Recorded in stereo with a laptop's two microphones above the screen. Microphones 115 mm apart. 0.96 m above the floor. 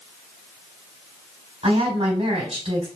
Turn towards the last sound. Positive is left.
turn(degrees=-65)  # may be behind; listen again after turning